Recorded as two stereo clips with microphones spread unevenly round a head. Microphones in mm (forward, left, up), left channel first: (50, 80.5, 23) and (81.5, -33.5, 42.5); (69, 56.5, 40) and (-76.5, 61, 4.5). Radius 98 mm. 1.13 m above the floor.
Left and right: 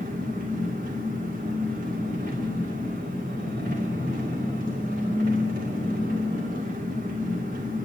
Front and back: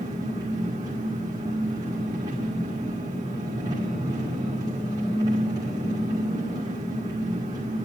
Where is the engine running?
110° right, 2.0 m.